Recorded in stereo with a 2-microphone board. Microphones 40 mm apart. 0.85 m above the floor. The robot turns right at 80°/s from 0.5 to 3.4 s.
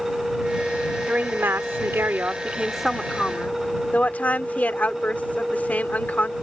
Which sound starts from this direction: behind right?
A woman speaking, at 1.1 s.